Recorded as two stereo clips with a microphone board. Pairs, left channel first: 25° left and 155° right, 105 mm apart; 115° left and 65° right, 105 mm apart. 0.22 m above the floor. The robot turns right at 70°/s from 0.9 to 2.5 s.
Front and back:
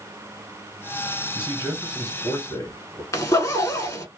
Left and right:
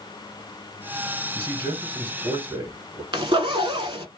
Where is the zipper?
30° right, 0.7 m.